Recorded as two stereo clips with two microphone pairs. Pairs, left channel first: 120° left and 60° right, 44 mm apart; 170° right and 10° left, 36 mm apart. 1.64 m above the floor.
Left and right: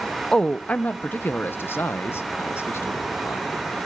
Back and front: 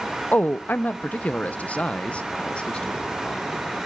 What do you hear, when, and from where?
0.3 s a man speaking: 170° right, 0.6 m; by 3.6 s 130° left, 2.0 m